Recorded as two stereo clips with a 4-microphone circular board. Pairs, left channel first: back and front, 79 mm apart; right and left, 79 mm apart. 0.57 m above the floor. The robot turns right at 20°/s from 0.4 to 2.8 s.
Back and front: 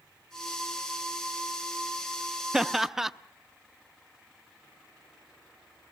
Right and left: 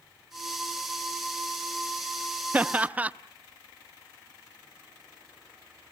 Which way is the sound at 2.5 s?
70° left.